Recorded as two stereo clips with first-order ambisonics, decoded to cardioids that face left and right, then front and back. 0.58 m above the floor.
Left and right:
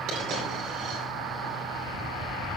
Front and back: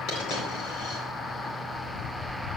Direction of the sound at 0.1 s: 35° right.